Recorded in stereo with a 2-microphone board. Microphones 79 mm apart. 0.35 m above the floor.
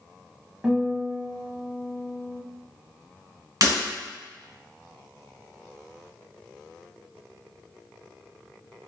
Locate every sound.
0.6 s a guitar: 10° right (ahead or behind), 0.6 m
3.6 s breaking glass: 50° right (ahead or behind), 1.7 m